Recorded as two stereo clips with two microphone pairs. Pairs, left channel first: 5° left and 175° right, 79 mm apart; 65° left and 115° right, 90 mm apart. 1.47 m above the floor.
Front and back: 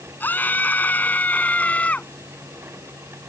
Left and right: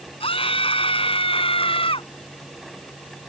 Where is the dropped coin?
No dropped coin in this recording.